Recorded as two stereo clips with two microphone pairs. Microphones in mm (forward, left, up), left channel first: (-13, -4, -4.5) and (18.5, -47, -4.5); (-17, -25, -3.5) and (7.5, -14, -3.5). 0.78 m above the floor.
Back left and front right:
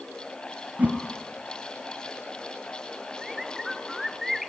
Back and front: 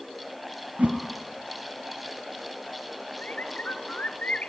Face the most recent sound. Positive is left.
turn(degrees=-140)